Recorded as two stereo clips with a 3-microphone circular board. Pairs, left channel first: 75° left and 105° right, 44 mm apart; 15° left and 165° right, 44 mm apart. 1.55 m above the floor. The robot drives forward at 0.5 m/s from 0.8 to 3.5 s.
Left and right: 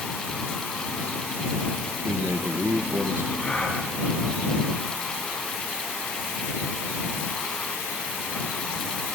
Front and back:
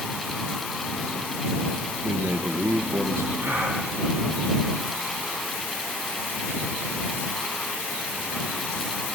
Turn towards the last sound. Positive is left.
turn(degrees=150)